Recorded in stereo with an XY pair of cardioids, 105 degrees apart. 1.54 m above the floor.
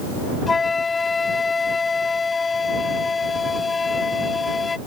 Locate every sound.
0.5 s a flute: 30° left